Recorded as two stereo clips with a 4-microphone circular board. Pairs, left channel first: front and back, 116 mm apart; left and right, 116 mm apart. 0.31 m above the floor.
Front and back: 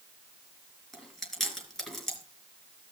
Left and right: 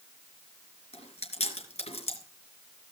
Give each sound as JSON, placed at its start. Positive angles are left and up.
{"t": 0.9, "sound": "chewing", "azimuth_deg": 90, "distance_m": 4.5}